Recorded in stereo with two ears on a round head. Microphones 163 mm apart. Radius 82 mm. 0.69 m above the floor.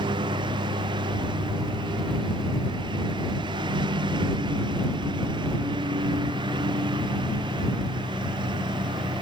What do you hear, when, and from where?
0.0 s a lawn mower: 25° right (ahead or behind)